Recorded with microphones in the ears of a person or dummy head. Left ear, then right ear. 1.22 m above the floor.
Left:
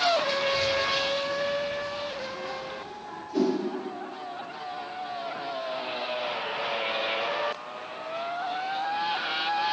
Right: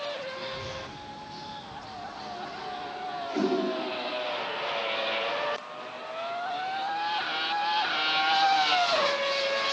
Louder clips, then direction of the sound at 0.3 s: Left 11 dB; 70° left (ahead or behind).